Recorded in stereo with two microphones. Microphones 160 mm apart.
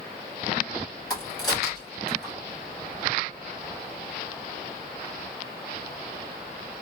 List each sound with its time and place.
1.1 s a crack: 20° left (ahead or behind), 1.7 m